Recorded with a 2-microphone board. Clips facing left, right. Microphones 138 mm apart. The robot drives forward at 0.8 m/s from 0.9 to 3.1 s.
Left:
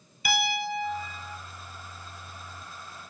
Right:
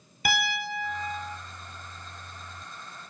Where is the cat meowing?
No cat meowing in this recording.